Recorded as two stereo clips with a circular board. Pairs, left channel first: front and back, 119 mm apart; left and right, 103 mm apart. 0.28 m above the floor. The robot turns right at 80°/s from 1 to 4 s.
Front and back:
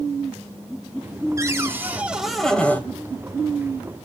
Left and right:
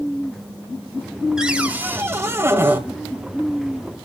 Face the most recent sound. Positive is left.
turn(degrees=45)